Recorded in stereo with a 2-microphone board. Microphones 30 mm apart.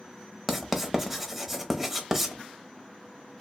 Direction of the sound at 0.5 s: 10° right (ahead or behind).